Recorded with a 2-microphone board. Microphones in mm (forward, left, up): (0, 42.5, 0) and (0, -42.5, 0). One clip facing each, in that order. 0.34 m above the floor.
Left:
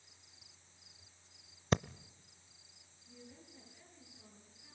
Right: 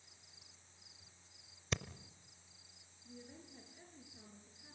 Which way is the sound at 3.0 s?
40° right (ahead or behind).